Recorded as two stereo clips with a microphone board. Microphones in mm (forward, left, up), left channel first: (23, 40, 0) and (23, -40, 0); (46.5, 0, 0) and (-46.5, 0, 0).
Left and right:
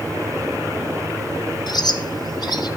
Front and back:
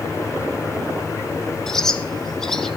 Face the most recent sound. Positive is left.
turn(degrees=85)